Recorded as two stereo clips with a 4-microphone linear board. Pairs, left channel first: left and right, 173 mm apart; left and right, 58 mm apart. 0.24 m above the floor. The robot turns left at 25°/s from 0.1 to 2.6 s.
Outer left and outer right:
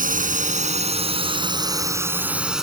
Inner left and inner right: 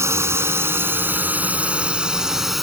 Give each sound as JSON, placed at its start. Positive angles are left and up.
{"t": 0.0, "sound": "a drone", "azimuth_deg": -115}